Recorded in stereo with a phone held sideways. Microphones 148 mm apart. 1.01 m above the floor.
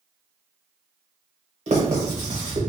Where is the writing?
50° right (ahead or behind), 1.0 m.